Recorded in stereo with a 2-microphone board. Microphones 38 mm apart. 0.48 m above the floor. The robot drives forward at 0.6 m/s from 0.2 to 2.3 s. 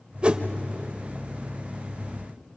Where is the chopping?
I don't hear chopping.